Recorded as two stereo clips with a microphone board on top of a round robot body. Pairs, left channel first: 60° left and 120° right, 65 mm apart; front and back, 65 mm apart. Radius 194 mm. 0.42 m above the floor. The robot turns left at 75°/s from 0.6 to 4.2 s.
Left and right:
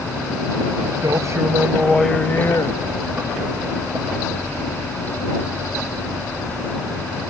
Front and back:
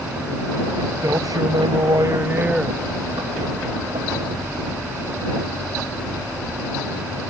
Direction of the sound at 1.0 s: 140° right.